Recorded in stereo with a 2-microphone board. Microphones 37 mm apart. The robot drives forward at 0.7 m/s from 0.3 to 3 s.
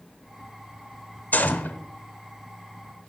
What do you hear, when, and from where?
1.3 s a gunshot: 55° left (ahead or behind), 1.2 m; by 1.8 s 60° left (ahead or behind), 1.2 m